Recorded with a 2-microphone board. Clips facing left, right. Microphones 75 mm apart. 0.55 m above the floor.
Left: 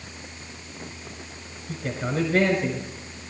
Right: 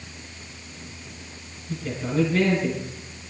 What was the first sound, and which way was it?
A man speaking, 65° left (ahead or behind).